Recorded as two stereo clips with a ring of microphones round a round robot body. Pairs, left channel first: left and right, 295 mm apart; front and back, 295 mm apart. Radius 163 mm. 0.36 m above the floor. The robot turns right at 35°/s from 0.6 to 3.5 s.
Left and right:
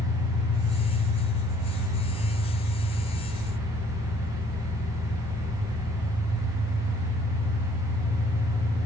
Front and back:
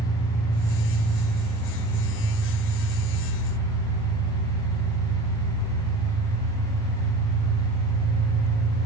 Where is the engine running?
60° left, 8 m; by 8.9 s 160° left, 8 m.